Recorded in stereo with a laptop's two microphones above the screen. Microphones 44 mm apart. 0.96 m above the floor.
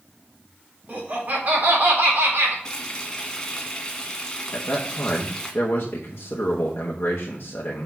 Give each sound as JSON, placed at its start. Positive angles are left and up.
{"t": 0.9, "sound": "laughter", "side_deg": -40, "distance_m": 3.5}
{"t": 2.6, "sound": "frying", "side_deg": 15, "distance_m": 1.9}
{"t": 4.5, "sound": "a man speaking", "side_deg": 70, "distance_m": 1.0}